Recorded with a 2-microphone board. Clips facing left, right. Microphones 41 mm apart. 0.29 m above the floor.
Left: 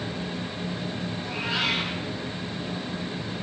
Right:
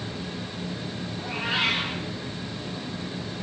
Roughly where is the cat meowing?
Right.